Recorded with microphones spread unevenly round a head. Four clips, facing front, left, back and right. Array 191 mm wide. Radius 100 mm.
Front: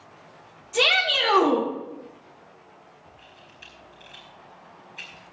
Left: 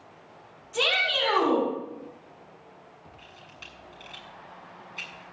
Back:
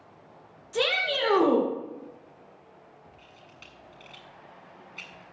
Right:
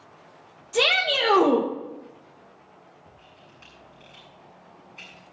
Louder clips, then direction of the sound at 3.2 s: Left 2 dB, front 2 dB; 120° left.